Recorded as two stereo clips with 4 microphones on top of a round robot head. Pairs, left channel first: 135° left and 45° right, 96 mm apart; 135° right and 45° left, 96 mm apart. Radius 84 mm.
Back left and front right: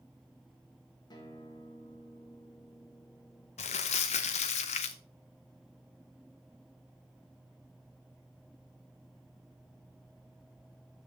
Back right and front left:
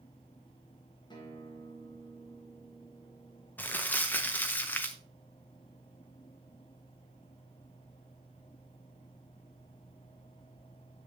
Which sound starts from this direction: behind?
A guitar, at 1.1 s.